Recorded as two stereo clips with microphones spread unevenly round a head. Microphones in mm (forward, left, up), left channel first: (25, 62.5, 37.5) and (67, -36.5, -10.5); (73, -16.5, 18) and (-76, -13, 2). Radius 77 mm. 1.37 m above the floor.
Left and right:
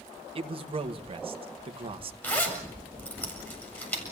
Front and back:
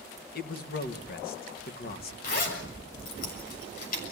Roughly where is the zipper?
Ahead left.